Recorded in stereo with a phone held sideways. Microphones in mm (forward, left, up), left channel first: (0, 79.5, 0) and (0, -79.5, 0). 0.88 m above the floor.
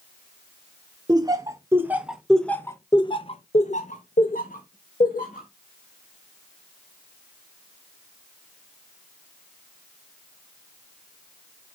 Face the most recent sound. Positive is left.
turn(degrees=60)  # may be behind; listen again after turning